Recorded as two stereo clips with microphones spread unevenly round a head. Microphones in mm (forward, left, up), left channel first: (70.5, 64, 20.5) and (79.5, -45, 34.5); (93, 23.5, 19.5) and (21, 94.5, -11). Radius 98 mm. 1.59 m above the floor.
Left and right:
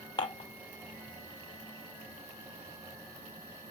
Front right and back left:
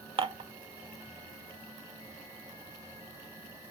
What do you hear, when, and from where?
0.2 s dishes clattering: 115° left, 0.6 m